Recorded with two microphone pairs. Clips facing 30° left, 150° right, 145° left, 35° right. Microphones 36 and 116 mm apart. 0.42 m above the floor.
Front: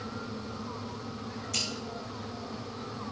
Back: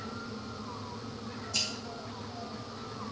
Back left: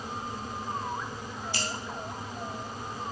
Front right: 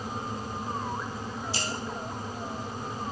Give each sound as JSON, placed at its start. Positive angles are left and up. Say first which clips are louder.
{"t": 1.5, "sound": "scissors", "louder": "even, back left 1 dB", "azimuth_deg": 20, "distance_m": 4.5}